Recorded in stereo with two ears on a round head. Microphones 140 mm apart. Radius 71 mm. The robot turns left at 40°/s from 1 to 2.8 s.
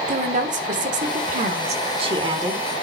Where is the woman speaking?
90° right, 1.3 m; by 2.7 s 155° right, 1.3 m.